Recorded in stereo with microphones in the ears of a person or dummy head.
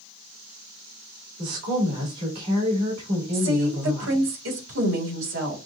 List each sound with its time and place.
1.4 s a woman speaking: 85° right, 2.5 m
3.3 s a woman speaking: 80° right, 2 m